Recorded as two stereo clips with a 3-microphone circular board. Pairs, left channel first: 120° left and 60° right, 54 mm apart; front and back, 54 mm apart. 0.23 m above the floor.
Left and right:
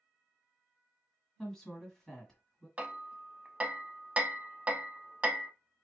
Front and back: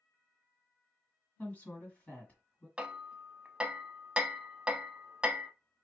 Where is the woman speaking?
45° left, 1.8 m.